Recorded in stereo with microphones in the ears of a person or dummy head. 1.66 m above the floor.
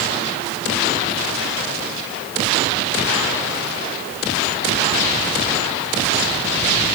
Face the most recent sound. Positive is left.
No sound to turn to.